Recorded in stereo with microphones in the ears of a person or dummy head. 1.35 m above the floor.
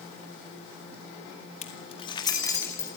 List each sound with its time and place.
1.6 s keys jangling: 45° left (ahead or behind), 1.5 m; by 2.9 s 20° left (ahead or behind), 3 m